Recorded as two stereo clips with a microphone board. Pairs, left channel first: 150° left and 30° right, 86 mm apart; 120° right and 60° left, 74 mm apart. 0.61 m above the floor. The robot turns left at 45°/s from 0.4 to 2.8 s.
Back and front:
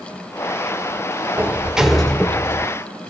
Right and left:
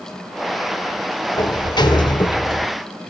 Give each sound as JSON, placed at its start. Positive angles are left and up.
{"t": 1.4, "sound": "a sliding door", "azimuth_deg": -95, "distance_m": 0.8}